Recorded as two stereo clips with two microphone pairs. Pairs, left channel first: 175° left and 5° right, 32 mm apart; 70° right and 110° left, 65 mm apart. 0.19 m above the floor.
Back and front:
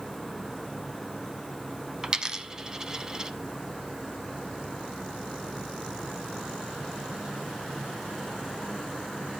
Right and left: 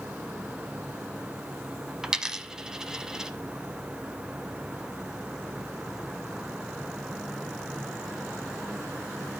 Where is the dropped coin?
35° left, 0.7 m.